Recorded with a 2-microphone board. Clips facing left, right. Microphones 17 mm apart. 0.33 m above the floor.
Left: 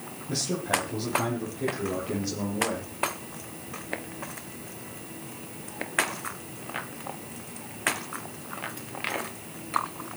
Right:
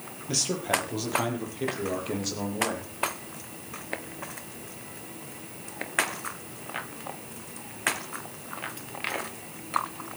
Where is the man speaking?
55° right (ahead or behind), 7 m; by 2.9 s 60° right (ahead or behind), 9.5 m.